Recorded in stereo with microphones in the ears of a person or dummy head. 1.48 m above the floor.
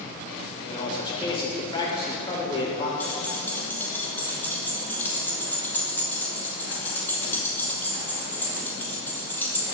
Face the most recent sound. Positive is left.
turn(degrees=15)  # may be behind; listen again after turning